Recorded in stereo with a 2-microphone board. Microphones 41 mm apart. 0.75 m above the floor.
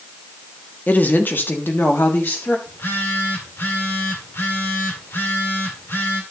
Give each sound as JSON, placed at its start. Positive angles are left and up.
{"t": 0.9, "sound": "a woman speaking", "side_deg": 45, "distance_m": 1.4}
{"t": 2.7, "sound": "a phone buzzing", "side_deg": 70, "distance_m": 2.5}